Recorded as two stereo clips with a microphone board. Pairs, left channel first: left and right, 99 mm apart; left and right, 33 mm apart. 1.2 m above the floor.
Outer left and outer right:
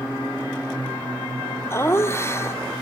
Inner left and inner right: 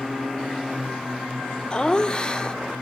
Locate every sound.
1.7 s laughter: 25° left (ahead or behind), 0.7 m